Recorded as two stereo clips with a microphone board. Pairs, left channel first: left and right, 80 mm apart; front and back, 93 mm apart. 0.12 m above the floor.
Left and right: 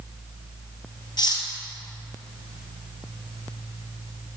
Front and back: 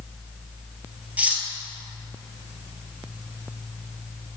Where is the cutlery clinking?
105° left, 1.3 m.